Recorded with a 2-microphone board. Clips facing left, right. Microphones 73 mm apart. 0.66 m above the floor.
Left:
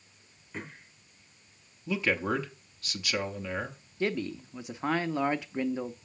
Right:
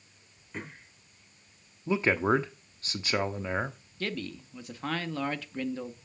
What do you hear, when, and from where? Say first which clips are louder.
1.9 s a man speaking: right 4 dB; 35° right (ahead or behind), 0.9 m
4.0 s a man speaking: left 5 dB; 20° left (ahead or behind), 0.6 m